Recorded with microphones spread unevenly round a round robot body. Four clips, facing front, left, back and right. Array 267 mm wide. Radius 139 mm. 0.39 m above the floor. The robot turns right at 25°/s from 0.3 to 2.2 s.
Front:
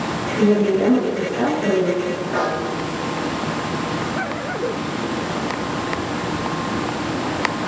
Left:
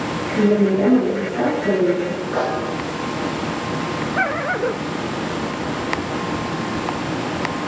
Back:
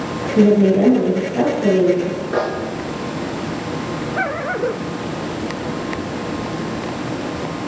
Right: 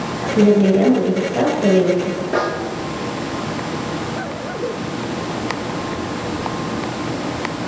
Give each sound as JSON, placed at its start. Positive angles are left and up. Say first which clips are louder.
{"t": 0.4, "sound": "a woman speaking", "louder": "right 3 dB, back 4 dB", "azimuth_deg": -155, "distance_m": 7.5}
{"t": 2.3, "sound": "a snare drum", "louder": "right 1 dB, back 2 dB", "azimuth_deg": -125, "distance_m": 6.5}